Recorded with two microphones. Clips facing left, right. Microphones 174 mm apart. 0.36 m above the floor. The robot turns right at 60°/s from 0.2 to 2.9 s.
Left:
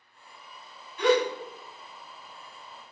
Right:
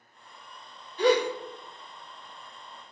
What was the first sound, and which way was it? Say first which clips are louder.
A gasp: even; 35° right (ahead or behind).